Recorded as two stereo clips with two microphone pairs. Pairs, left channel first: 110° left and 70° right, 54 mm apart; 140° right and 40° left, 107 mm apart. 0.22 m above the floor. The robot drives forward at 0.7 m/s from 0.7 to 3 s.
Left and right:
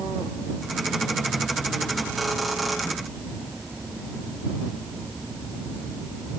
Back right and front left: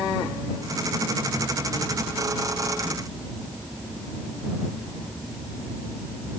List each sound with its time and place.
Only background noise.